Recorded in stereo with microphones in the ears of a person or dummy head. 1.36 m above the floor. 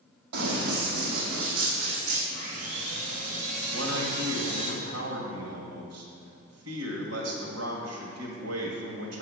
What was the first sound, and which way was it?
Running footsteps, 55° right (ahead or behind).